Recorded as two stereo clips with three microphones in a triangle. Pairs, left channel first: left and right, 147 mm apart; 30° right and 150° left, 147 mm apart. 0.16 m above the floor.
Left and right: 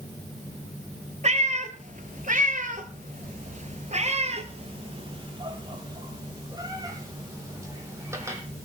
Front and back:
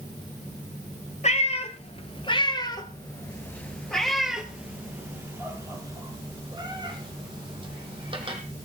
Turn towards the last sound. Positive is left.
turn(degrees=-160)